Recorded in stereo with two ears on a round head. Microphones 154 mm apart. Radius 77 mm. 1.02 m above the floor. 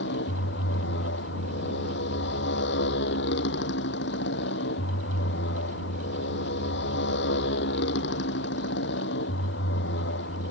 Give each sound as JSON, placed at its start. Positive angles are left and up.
{"t": 0.0, "sound": "a motorcycle", "side_deg": 70}